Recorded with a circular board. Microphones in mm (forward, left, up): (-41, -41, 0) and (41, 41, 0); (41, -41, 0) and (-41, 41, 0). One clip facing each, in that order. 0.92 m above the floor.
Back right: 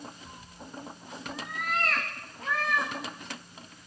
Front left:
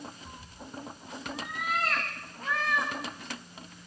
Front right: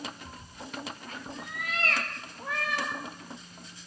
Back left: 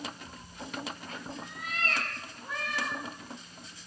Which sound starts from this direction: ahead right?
A cat meowing, at 0.2 s.